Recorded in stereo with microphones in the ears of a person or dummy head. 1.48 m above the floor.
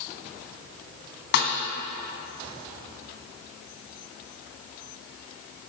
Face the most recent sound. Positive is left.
turn(degrees=60)  # may be behind; listen again after turning